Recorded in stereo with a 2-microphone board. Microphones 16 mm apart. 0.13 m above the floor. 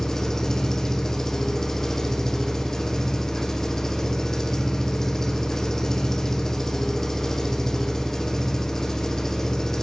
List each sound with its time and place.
0.0 s an engine running: 25° left (ahead or behind), 4 m